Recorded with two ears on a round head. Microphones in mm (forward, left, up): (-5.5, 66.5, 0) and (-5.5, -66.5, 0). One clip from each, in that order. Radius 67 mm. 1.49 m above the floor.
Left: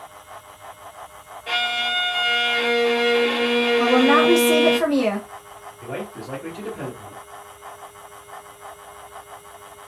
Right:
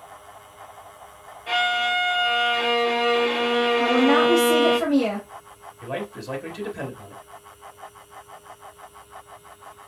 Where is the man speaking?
30° right (ahead or behind), 1.0 m.